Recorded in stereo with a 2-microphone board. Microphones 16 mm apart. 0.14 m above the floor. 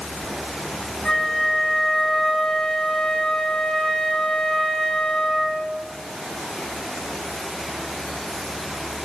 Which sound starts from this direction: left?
A flute, at 1.1 s.